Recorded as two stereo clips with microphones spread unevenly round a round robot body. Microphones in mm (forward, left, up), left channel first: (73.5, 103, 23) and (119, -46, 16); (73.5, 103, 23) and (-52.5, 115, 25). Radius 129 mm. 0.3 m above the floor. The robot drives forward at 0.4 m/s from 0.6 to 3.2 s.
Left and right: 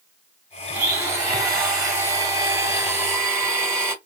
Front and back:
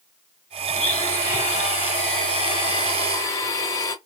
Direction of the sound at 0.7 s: 10° right.